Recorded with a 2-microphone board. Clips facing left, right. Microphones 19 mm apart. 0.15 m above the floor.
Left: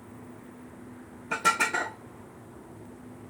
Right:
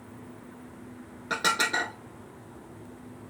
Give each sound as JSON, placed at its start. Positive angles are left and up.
{"t": 1.3, "sound": "dishes clattering", "side_deg": -60, "distance_m": 3.0}